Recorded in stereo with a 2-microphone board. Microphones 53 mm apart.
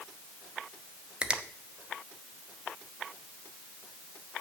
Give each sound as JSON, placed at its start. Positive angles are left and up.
{"t": 1.2, "sound": "a finger snap", "side_deg": -20, "distance_m": 0.8}